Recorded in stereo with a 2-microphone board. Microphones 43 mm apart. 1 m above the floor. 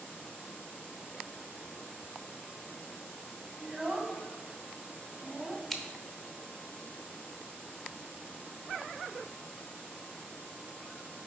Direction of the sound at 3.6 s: 5° right (ahead or behind).